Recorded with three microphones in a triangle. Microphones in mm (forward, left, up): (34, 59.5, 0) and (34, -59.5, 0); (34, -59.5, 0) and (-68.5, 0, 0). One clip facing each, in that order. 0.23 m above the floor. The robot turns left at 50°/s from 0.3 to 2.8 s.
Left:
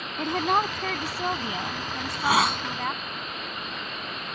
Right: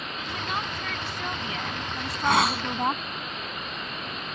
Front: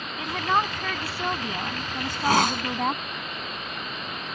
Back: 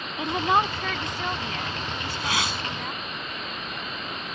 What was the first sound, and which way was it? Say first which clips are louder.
A woman speaking: left 9 dB, back 2 dB; 90° left.